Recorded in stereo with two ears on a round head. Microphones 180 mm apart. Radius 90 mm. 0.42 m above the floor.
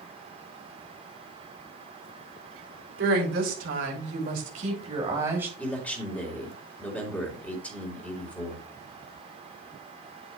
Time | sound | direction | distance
3.0 | a woman speaking | 65° right (ahead or behind) | 3 m
5.6 | a man speaking | 5° left (ahead or behind) | 2 m